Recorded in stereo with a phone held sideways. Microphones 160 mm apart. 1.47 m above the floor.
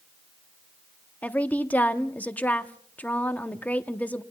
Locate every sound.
1.2 s a woman speaking: 10° left (ahead or behind), 0.9 m